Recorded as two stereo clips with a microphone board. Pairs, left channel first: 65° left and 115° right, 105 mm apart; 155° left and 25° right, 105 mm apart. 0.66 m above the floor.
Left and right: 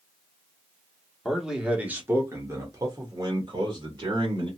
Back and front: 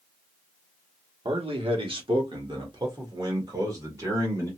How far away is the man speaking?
About 1.2 m.